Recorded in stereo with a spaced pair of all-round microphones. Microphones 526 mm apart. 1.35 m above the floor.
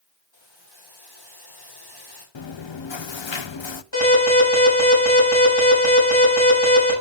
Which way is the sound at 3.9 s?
50° left (ahead or behind).